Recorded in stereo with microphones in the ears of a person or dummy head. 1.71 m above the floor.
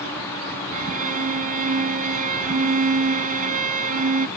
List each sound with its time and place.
0.7 s a violin: 45° right (ahead or behind)